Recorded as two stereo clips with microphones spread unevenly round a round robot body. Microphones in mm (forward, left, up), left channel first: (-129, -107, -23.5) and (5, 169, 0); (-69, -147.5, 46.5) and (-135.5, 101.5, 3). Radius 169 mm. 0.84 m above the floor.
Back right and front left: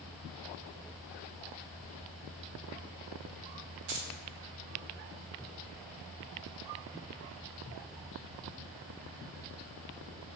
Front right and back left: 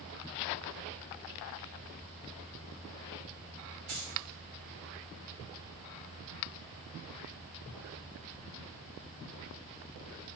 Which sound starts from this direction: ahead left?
Keys jangling, at 3.9 s.